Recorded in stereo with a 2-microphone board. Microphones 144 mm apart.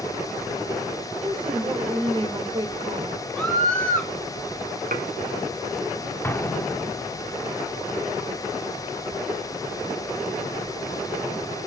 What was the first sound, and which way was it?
A woman speaking, 35° right (ahead or behind).